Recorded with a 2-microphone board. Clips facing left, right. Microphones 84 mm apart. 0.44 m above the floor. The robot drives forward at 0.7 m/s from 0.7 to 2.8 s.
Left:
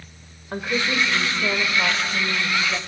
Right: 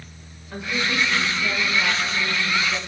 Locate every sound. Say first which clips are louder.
0.5 s a woman speaking: left 2 dB; 50° left (ahead or behind), 1.5 m; by 2.8 s 35° left (ahead or behind), 2 m